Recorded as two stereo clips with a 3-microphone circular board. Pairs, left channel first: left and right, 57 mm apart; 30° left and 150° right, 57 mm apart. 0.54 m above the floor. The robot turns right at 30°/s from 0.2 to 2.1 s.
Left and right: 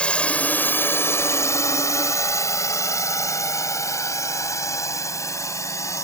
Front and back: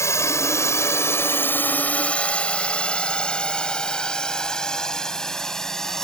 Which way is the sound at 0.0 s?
20° left.